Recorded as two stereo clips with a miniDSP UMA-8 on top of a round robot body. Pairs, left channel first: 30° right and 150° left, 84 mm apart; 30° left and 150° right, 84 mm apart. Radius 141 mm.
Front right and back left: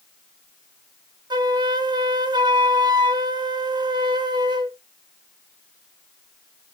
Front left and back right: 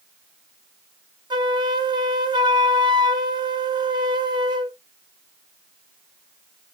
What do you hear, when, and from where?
1.3 s a flute: straight behind, 0.8 m